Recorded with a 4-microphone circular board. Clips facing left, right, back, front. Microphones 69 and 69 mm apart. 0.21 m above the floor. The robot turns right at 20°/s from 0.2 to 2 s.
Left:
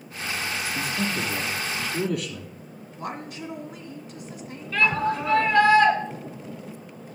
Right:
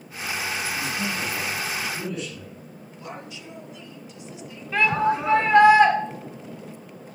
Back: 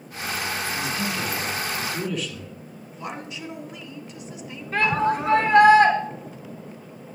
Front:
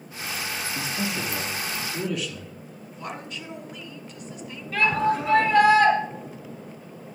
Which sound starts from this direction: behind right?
A shout, at 4.7 s.